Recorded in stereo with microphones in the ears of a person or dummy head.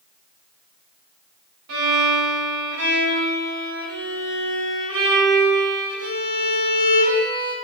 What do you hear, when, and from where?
1.7 s a violin: 75° right (ahead or behind), 2.5 m